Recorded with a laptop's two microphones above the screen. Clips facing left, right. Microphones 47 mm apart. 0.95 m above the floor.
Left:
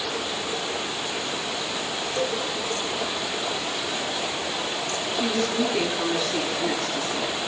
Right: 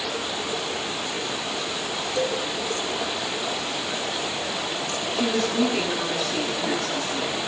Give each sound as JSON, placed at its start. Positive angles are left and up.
{"t": 2.1, "sound": "a cowbell", "side_deg": -65, "distance_m": 6.0}
{"t": 5.1, "sound": "a woman speaking", "side_deg": -45, "distance_m": 9.0}